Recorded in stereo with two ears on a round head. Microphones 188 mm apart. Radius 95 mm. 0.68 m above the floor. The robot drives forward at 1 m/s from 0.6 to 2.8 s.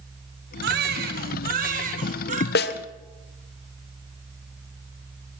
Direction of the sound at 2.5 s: 50° left (ahead or behind).